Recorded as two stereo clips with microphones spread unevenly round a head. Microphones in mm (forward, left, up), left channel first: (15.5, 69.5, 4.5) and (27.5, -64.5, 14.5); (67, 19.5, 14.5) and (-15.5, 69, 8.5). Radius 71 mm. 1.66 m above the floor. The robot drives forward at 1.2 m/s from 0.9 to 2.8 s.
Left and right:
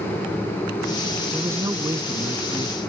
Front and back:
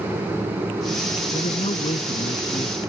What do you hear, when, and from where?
1.3 s a man speaking: 15° right; by 2.8 s 20° right